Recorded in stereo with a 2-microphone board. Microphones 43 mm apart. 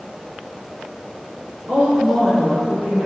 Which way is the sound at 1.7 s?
75° right (ahead or behind).